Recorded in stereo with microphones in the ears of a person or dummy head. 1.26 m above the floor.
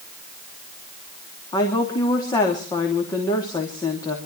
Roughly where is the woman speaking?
Left.